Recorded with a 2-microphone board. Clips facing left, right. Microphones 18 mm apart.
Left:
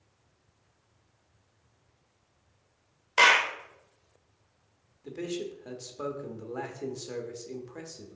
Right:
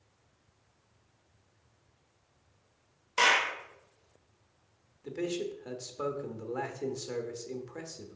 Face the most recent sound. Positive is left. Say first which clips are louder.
# right 1 dB
turn(degrees=-5)  # may be behind; listen again after turning